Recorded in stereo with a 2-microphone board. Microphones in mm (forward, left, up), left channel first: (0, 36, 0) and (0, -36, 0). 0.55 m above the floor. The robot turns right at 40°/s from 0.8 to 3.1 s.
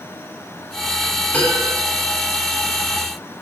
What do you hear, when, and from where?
1.3 s a piano: 20° left (ahead or behind), 8.5 m; by 1.7 s 35° left (ahead or behind), 8.5 m